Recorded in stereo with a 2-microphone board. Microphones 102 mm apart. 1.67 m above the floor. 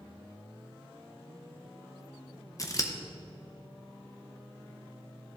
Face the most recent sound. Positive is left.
turn(degrees=35)  # may be behind; listen again after turning